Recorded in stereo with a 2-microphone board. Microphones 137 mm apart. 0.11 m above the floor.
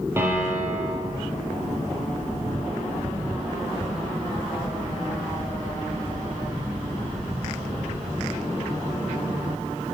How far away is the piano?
About 2.5 m.